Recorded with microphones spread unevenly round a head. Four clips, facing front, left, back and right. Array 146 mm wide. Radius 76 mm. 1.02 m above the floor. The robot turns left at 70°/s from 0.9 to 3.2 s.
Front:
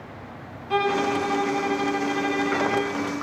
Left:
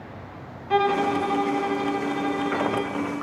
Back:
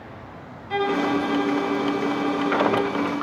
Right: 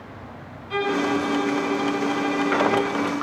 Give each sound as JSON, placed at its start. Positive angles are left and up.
{"t": 0.7, "sound": "a violin", "azimuth_deg": 80, "distance_m": 5.5}